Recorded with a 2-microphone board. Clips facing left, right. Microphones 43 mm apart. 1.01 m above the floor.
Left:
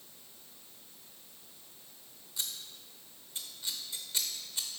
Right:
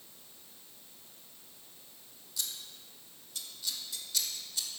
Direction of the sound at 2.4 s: 30° left (ahead or behind).